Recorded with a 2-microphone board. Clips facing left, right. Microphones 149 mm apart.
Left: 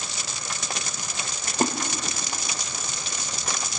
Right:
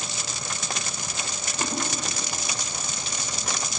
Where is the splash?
45° left (ahead or behind), 1.2 m.